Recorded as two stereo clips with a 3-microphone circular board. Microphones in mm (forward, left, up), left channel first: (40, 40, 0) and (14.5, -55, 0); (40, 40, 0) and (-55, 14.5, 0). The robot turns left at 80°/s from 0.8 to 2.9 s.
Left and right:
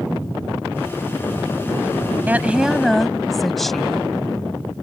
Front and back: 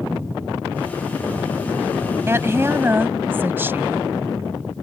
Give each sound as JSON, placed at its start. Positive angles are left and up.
{"t": 2.3, "sound": "a woman speaking", "azimuth_deg": -145}